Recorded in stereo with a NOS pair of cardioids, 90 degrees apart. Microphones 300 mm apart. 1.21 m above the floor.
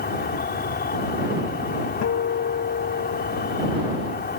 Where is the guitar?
60° left.